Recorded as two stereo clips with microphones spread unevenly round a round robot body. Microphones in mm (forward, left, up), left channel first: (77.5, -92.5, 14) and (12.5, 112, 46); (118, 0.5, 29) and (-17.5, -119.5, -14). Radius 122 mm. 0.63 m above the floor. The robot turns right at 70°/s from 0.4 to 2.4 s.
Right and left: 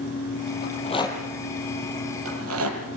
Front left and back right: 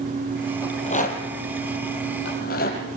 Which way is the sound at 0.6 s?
30° right.